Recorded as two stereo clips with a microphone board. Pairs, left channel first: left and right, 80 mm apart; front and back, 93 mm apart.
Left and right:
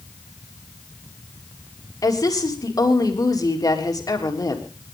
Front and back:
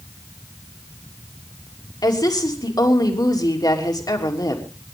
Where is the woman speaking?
50° left, 3 m.